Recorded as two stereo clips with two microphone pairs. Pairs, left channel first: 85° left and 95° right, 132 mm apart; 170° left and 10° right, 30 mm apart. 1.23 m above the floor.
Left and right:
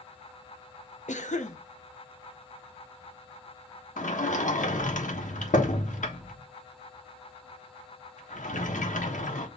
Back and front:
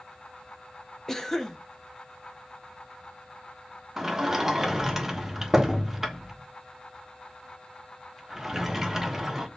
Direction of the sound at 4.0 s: 70° left.